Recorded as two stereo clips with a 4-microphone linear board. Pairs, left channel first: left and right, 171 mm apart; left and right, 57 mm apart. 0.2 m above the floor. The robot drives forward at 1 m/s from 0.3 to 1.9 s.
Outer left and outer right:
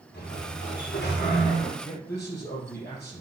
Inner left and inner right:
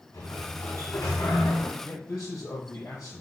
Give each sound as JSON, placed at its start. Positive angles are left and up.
{"t": 0.1, "sound": "a sliding door", "side_deg": 75, "distance_m": 6.0}
{"t": 1.8, "sound": "a man speaking", "side_deg": 75, "distance_m": 5.5}